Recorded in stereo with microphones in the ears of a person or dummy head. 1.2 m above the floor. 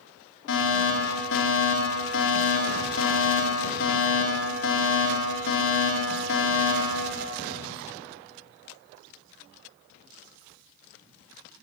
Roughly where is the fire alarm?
Left.